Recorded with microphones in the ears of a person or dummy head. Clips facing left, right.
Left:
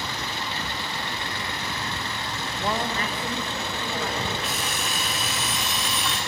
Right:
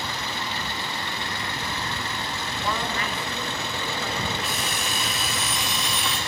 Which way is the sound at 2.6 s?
25° left (ahead or behind).